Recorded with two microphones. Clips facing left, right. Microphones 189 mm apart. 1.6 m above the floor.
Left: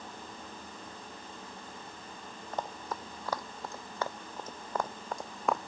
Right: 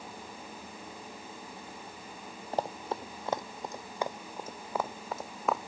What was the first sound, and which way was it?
Running footsteps, 35° right (ahead or behind).